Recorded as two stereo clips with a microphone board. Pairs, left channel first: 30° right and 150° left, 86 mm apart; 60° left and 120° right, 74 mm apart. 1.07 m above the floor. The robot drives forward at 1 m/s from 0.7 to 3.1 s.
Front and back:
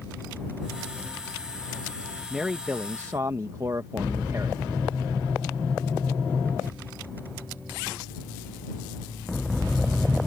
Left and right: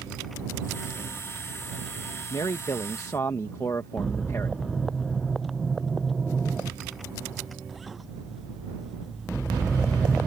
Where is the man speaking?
60° left; by 4.6 s 105° left.